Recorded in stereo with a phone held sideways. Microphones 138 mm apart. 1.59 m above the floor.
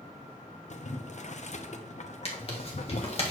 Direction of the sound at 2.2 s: 45° left (ahead or behind).